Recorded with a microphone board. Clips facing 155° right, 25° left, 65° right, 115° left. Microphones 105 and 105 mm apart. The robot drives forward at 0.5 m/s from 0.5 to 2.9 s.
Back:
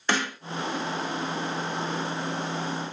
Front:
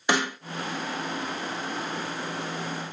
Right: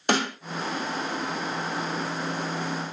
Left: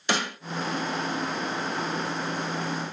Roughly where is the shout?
I don't hear a shout.